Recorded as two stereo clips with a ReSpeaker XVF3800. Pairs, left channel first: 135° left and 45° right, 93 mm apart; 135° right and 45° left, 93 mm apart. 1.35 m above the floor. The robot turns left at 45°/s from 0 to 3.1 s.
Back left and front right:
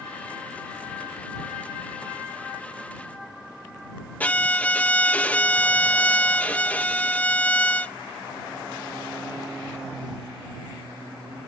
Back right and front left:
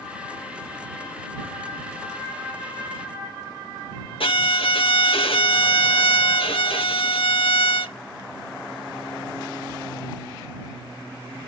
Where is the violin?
150° right.